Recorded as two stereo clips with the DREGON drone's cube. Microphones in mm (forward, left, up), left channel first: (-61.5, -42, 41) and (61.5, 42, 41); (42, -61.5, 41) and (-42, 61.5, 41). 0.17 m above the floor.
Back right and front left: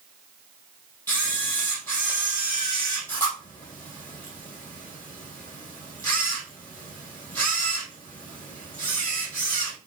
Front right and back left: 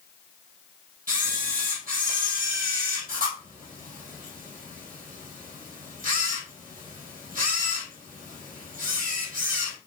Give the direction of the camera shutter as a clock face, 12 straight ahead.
7 o'clock.